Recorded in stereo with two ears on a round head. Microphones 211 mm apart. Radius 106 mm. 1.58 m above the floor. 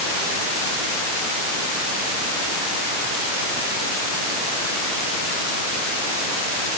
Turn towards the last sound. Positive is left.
No sound to turn to.